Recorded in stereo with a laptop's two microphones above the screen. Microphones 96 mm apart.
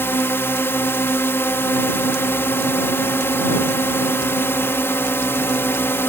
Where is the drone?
25° left (ahead or behind).